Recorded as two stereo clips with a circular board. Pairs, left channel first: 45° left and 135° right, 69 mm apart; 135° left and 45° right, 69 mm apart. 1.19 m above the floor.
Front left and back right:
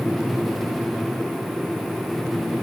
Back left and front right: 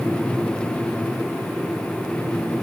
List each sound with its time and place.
Only background noise.